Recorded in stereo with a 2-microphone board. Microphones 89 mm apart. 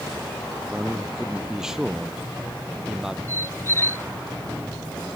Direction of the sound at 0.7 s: 5° right (ahead or behind).